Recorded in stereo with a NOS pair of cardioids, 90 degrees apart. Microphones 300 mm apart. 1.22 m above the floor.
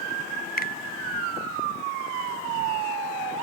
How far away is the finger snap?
About 0.5 m.